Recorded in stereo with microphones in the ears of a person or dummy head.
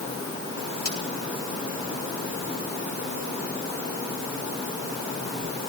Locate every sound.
0.8 s a crack: 70° left (ahead or behind), 6 m